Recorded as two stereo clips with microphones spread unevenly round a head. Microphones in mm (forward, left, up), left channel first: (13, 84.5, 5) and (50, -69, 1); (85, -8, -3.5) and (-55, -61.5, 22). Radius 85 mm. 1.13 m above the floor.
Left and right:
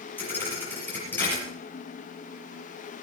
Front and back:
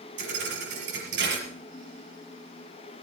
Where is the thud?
175° right, 6 m.